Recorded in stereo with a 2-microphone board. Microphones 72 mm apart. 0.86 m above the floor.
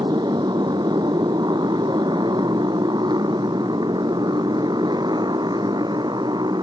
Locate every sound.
0.0 s a motorcycle: 85° right; by 6.6 s 80° right